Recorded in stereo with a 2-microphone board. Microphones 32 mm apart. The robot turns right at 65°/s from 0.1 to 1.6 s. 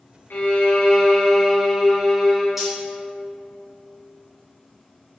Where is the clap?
I don't hear a clap.